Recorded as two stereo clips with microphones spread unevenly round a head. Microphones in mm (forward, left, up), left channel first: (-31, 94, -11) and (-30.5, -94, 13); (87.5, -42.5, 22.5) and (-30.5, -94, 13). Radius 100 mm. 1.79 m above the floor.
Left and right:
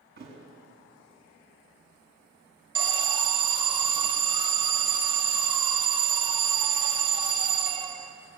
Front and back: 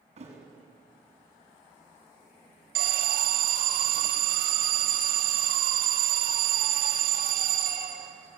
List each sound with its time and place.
0.2 s a thud: 125° right, 7 m
2.8 s an alarm: 155° right, 2.5 m